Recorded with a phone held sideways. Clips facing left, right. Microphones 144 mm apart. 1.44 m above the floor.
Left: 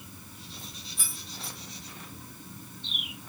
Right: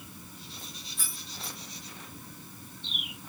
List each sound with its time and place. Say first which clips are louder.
1.0 s keys jangling: left 1 dB; 10° left (ahead or behind), 1.1 m